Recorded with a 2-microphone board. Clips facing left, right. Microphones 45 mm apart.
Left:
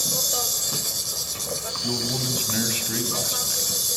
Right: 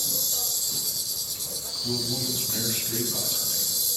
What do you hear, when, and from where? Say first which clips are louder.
0.0 s an insect: left 6 dB; 70° left (ahead or behind), 1.1 m
1.8 s a man speaking: left 1 dB; 40° left (ahead or behind), 4 m